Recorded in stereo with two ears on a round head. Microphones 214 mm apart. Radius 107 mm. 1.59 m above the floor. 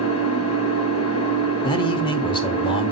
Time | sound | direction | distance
0.0 | an engine running | 60° left (ahead or behind) | 2.5 m
1.6 | a man speaking | 20° left (ahead or behind) | 1.0 m